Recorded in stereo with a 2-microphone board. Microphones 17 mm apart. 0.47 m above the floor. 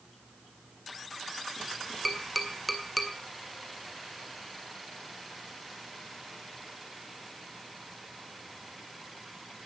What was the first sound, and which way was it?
Tapping, 5° left (ahead or behind).